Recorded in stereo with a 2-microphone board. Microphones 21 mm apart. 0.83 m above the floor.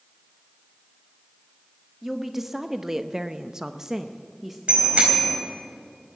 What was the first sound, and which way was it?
A woman speaking, 10° right (ahead or behind).